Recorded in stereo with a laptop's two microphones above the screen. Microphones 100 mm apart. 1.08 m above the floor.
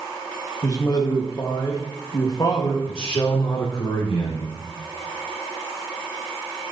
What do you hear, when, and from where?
0.6 s a man speaking: 40° left (ahead or behind), 1.5 m
2.9 s a man speaking: 60° left (ahead or behind), 2.5 m